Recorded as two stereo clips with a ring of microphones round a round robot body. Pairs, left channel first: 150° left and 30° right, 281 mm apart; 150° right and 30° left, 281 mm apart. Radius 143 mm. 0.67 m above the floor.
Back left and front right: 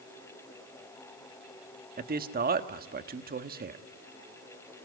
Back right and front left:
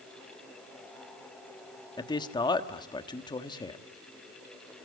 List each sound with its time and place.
2.0 s a man speaking: 80° right, 1.3 m